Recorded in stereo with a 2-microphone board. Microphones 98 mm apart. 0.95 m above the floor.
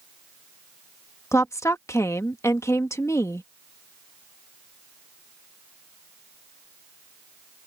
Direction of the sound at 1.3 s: 30° left (ahead or behind).